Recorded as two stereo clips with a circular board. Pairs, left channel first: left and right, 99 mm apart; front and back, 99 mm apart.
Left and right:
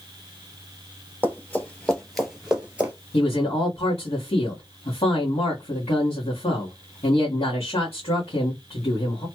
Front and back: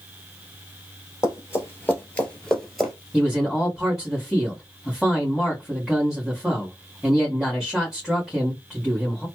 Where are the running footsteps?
35° left, 1.7 m; by 2.9 s 110° right, 1.5 m.